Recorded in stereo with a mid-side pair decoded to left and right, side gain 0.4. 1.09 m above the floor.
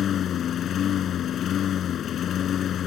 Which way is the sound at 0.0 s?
65° left.